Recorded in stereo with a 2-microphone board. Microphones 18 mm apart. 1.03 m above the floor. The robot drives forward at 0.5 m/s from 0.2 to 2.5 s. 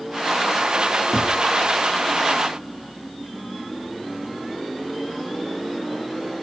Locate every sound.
1.1 s knocking: 30° right (ahead or behind), 2 m